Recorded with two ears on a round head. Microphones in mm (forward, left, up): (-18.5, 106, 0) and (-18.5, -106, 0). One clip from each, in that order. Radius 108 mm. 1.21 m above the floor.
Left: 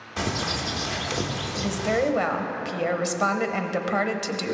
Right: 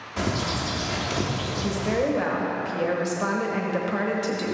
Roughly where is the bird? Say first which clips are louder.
Even; centre.